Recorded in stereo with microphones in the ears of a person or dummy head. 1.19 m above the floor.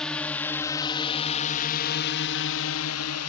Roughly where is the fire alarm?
I don't hear a fire alarm.